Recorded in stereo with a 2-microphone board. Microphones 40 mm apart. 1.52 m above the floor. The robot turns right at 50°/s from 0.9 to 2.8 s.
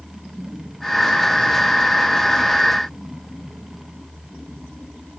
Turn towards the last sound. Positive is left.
No sound to turn to.